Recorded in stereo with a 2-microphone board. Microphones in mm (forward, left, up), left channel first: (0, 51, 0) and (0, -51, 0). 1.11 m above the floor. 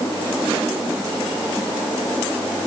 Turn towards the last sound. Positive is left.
No sound to turn to.